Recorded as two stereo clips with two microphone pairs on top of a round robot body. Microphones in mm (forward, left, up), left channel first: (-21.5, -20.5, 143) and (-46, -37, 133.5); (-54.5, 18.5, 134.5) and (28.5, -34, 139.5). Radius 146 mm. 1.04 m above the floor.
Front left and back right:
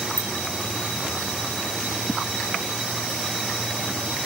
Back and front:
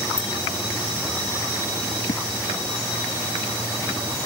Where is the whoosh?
130° left.